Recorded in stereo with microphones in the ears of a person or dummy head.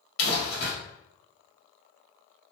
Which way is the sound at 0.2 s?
75° left (ahead or behind).